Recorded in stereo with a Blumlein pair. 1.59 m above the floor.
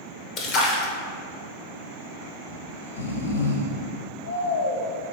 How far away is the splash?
About 0.9 m.